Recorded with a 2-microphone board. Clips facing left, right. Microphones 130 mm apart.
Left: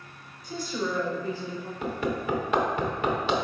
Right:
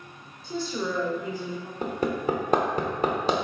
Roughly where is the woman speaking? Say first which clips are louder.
Right 1 dB; right.